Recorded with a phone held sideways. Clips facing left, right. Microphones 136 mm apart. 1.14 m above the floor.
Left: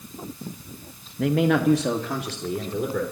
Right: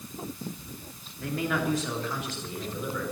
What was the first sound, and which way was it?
A man speaking, 80° left.